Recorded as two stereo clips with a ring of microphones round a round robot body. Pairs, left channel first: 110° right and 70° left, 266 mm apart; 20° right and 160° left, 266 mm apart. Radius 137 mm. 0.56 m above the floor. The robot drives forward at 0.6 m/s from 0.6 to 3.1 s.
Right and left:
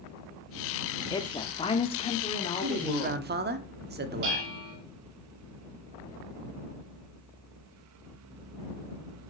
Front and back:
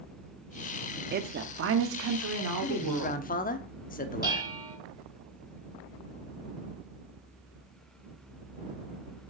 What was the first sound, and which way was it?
A woman speaking, 175° right.